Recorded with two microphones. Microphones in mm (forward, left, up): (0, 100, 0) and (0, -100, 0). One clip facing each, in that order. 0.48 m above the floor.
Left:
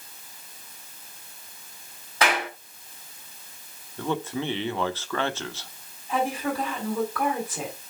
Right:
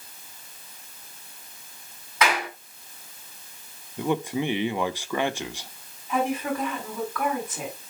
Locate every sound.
2.2 s a clap: 35° left (ahead or behind), 3.5 m
4.0 s a man speaking: 15° right (ahead or behind), 0.8 m
6.1 s a woman speaking: 35° left (ahead or behind), 4.5 m